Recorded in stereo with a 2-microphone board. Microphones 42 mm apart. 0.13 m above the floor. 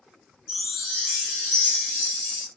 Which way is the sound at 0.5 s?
5° right (ahead or behind).